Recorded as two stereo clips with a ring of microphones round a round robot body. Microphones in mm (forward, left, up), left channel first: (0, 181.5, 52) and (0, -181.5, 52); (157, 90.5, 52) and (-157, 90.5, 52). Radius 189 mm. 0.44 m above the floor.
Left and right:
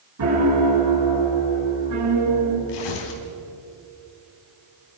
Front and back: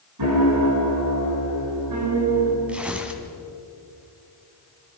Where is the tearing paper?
95° left, 3.5 m.